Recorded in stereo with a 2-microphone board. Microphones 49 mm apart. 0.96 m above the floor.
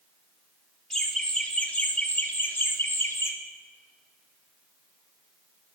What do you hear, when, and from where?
0.9 s laughter: 5° right (ahead or behind), 2 m; by 3.3 s 65° left (ahead or behind), 1.7 m